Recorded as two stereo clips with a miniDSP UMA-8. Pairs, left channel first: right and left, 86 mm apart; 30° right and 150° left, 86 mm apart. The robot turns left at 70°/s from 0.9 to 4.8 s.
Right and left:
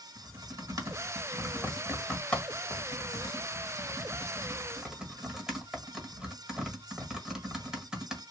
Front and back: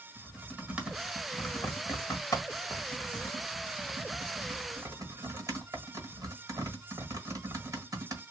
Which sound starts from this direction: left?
Typing on a keyboard, at 0.1 s.